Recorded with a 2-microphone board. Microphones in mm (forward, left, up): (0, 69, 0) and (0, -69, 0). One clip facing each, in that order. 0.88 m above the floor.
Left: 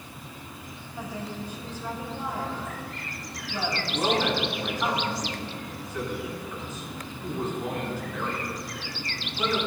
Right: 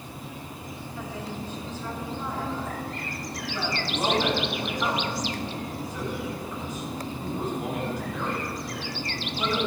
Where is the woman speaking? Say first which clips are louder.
Left 1 dB; 15° left (ahead or behind), 6.5 m.